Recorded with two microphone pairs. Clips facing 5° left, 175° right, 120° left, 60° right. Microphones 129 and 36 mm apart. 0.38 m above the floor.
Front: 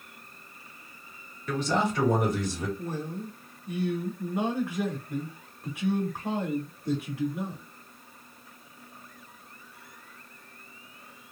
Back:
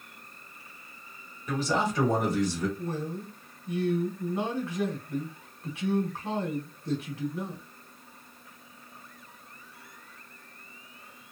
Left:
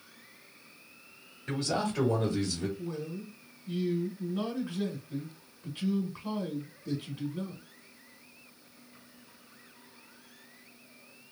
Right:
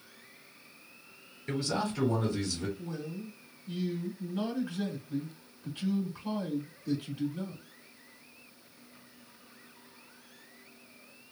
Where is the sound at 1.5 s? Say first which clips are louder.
Front 1 dB, left 1 dB; 115° left, 1.9 m; by 2.7 s 45° left, 1.2 m.